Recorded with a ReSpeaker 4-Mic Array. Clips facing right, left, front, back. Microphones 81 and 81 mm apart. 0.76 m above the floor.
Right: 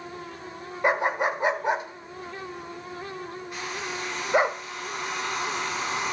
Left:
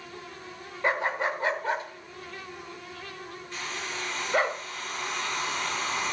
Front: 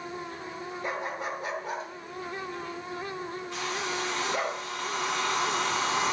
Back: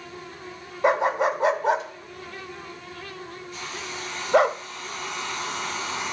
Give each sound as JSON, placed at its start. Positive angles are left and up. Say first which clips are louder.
{"t": 0.8, "sound": "a dog barking", "louder": "right 4 dB, back 14 dB", "azimuth_deg": -165, "distance_m": 1.0}
{"t": 3.5, "sound": "a hair dryer", "louder": "right 1 dB, front 4 dB", "azimuth_deg": -10, "distance_m": 5.5}